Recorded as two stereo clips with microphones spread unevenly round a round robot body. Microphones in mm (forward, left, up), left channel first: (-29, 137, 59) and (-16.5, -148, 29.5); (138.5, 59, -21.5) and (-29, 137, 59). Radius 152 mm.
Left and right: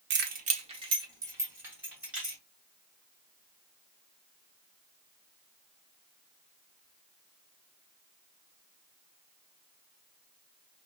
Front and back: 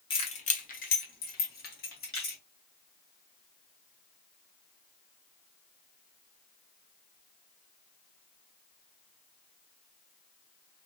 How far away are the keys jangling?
About 0.8 m.